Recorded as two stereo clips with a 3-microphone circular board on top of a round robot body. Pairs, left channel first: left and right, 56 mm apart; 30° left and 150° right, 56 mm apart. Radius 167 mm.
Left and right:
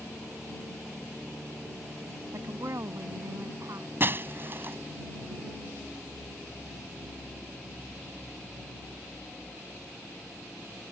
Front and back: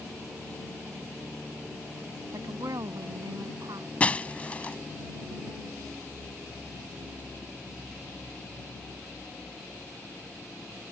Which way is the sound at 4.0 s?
40° right.